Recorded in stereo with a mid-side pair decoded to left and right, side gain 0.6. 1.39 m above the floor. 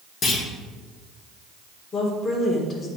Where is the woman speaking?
35° left, 3.5 m.